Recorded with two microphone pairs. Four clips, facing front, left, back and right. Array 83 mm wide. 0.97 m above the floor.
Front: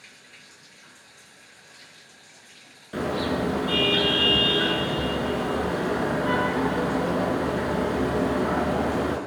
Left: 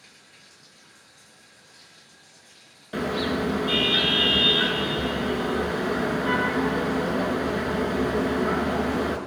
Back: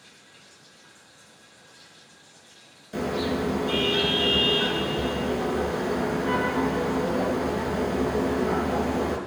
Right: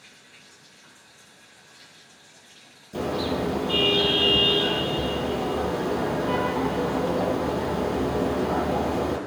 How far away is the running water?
About 6 m.